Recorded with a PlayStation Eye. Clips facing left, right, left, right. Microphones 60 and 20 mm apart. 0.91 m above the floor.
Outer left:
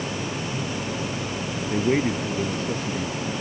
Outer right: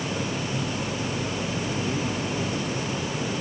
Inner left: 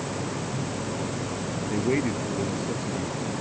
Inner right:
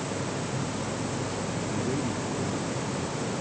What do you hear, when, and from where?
1.7 s a man speaking: 70° left (ahead or behind)